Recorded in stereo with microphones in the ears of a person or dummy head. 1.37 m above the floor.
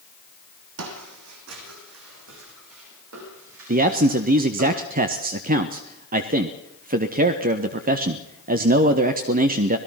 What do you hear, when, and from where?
0.8 s footsteps: 75° right (ahead or behind), 5 m; by 4.7 s 70° right (ahead or behind), 10.5 m
3.7 s a man speaking: 40° right (ahead or behind), 1.3 m